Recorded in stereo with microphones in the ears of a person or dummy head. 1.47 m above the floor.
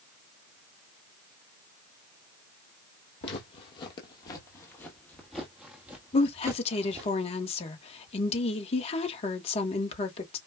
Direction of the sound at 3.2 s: 40° left (ahead or behind).